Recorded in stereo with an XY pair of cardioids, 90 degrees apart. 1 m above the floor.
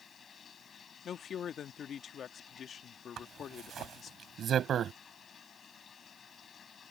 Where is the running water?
50° left.